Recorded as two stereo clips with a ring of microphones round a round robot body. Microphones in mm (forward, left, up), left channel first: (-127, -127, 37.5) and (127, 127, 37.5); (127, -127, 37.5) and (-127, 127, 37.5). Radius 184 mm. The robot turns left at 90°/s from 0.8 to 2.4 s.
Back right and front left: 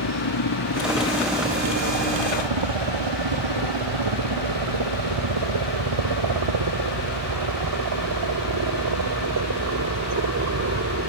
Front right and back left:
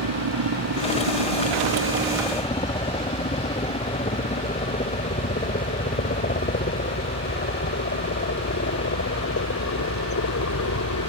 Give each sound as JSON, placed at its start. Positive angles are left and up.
{"t": 0.0, "sound": "a helicopter", "azimuth_deg": 180}